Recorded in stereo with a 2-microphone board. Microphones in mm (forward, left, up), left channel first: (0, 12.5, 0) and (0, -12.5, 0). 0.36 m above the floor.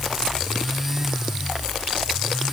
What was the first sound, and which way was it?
Only background noise.